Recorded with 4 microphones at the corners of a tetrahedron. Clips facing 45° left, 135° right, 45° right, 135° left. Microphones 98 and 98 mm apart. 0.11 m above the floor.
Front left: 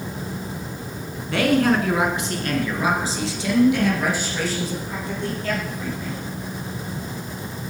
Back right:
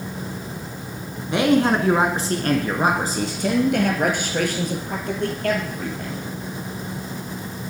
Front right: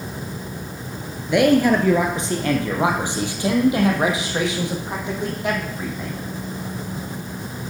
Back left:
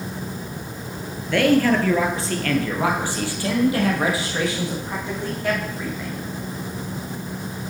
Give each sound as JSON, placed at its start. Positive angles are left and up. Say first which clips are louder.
{"t": 1.3, "sound": "a man speaking", "louder": "back right 1 dB, front right 2 dB", "azimuth_deg": -90, "distance_m": 1.3}